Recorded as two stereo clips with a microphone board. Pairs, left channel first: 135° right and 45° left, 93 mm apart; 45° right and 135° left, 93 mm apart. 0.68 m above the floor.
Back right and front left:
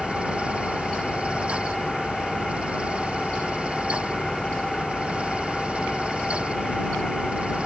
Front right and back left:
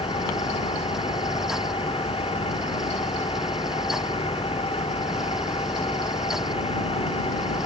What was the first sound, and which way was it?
An engine running, 50° right.